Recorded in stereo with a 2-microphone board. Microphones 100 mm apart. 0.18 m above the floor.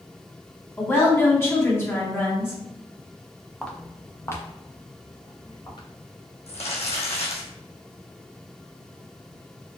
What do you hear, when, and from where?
0.8 s a woman speaking: 20° left (ahead or behind), 1.5 m
3.6 s footsteps: 5° left (ahead or behind), 1.0 m; by 5.9 s 45° left (ahead or behind), 2 m
6.5 s crumpling: 70° left (ahead or behind), 1.3 m